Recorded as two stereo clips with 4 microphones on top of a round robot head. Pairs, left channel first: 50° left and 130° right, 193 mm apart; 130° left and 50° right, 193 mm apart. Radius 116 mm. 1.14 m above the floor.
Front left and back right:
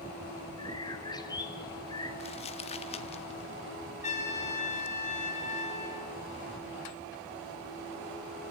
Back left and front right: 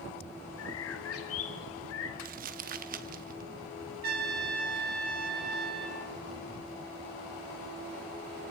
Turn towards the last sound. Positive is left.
turn(degrees=-5)